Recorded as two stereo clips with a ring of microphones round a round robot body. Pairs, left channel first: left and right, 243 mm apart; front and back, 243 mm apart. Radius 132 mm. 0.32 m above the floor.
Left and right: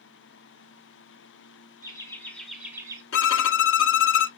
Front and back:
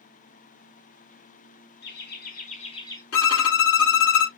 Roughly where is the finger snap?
No finger snap in this recording.